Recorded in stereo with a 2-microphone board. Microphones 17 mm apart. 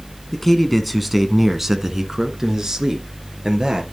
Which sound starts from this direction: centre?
A man speaking, at 0.3 s.